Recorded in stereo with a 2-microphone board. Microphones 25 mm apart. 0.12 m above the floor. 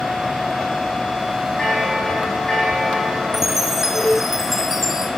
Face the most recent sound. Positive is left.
turn(degrees=-15)  # may be behind; listen again after turning